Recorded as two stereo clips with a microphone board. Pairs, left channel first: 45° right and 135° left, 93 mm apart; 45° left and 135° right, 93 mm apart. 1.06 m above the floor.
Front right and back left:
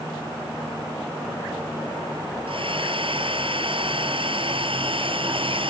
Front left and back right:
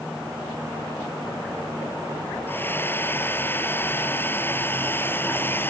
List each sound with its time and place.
2.5 s a hair dryer: 115° left